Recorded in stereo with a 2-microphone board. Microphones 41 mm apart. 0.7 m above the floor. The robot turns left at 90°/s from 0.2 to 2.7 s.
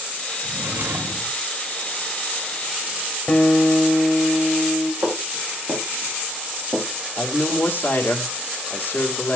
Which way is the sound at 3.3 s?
30° left (ahead or behind).